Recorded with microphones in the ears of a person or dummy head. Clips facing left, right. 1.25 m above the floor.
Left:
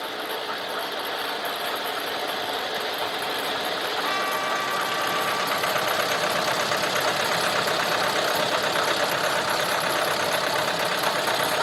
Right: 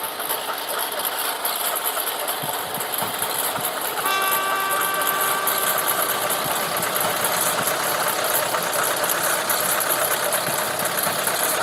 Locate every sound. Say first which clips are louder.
0.0 s a lawn mower: right 1 dB; 65° right (ahead or behind); by 11.6 s 40° right (ahead or behind)
4.0 s a trumpet: right 2 dB; 75° right (ahead or behind)